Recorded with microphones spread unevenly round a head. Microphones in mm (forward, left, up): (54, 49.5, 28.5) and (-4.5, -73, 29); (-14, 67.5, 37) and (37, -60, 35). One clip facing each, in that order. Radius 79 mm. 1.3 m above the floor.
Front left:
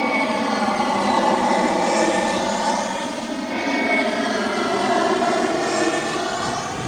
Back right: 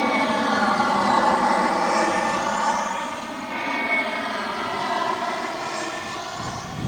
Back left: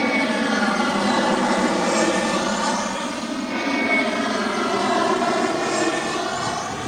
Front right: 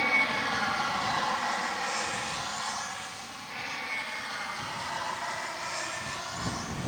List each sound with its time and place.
0.0 s an aircraft: 145° left; by 6.9 s 95° left